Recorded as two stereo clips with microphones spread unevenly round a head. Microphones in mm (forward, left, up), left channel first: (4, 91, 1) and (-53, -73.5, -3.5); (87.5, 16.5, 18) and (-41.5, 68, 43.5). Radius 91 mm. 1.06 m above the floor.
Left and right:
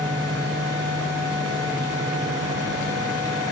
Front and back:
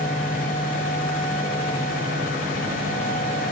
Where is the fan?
Straight ahead, 6.5 m.